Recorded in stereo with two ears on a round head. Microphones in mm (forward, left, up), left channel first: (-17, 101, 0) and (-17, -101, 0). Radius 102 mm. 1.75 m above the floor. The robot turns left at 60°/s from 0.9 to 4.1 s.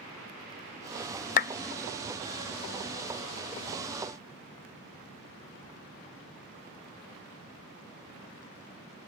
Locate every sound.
1.4 s a clap: 35° left (ahead or behind), 0.7 m; by 1.5 s 30° left (ahead or behind), 0.7 m